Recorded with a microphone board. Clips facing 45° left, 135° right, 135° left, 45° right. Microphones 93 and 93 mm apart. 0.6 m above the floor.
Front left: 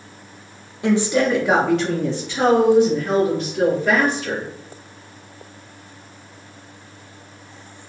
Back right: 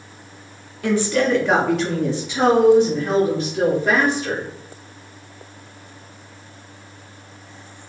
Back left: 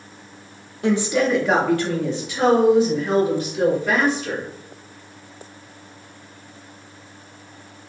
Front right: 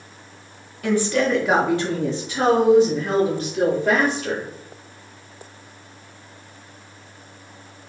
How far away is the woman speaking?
About 0.7 m.